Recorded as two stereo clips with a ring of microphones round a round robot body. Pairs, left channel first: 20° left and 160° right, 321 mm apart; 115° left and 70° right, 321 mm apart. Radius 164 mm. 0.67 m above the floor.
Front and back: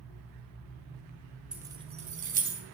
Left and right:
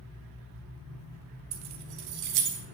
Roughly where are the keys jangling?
Right.